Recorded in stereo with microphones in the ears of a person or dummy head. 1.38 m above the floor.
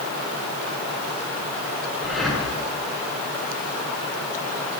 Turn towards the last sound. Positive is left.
turn(degrees=0)  # may be behind; listen again after turning